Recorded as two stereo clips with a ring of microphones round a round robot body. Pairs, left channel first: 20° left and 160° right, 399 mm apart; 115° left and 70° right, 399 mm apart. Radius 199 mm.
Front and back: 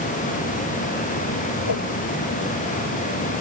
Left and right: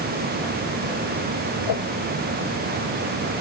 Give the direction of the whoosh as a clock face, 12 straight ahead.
10 o'clock.